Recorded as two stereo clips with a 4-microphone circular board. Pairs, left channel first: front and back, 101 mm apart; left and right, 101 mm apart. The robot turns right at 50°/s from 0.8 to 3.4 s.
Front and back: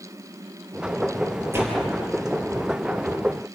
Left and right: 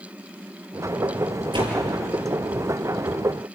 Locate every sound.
1.5 s a door slam: 115° right, 6.5 m; by 1.8 s 105° right, 6.5 m